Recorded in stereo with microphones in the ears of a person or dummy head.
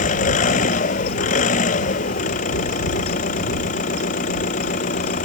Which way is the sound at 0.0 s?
50° left (ahead or behind).